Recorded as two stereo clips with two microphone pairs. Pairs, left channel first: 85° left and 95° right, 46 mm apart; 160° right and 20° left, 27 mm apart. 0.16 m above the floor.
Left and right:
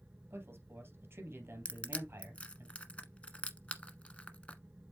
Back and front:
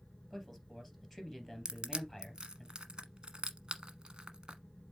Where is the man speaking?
70° right, 3 m.